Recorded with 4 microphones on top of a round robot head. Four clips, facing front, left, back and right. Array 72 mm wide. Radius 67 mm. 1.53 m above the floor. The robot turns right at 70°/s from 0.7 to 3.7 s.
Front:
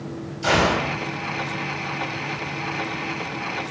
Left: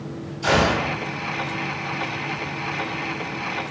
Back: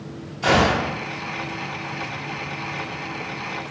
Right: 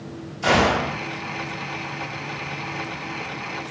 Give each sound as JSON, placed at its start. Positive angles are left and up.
{"t": 0.4, "sound": "a gunshot", "azimuth_deg": -145, "distance_m": 0.8}